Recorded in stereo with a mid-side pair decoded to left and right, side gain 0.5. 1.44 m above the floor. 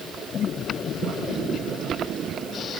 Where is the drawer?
I don't hear a drawer.